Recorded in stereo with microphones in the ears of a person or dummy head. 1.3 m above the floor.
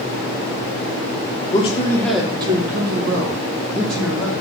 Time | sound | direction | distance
1.5 | a man speaking | 30° left (ahead or behind) | 0.8 m